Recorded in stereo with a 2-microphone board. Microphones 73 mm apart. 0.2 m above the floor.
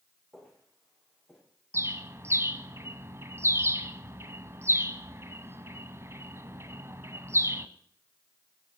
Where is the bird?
40° right (ahead or behind), 0.9 m.